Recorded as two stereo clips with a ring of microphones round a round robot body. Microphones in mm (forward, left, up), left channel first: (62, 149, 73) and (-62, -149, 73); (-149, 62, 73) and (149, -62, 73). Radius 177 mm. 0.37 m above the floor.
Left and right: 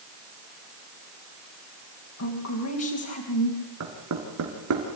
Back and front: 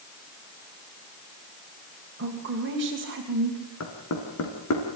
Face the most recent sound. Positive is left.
turn(degrees=-155)